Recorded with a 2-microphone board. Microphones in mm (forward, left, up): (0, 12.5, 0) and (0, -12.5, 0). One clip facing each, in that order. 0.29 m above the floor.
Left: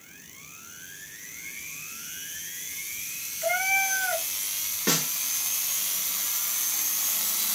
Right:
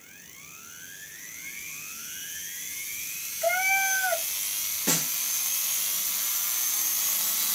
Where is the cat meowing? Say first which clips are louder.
Right 1 dB; 5° left (ahead or behind), 2 m.